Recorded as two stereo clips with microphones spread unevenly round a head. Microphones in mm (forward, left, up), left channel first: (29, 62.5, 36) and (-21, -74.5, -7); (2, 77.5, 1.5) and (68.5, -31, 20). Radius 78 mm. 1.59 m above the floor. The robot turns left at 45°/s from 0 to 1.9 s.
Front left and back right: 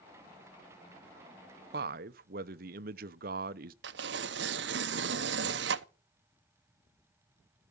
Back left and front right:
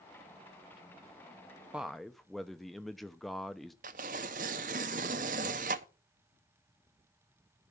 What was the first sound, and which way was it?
A man speaking, 140° right.